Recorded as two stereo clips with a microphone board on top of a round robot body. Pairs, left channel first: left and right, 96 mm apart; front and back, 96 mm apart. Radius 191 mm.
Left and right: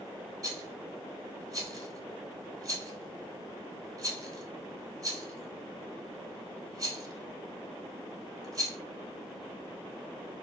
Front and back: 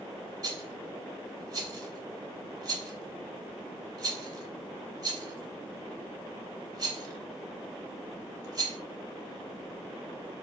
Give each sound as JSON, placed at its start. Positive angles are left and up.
{"t": 0.4, "sound": "a rattle", "azimuth_deg": -135, "distance_m": 2.5}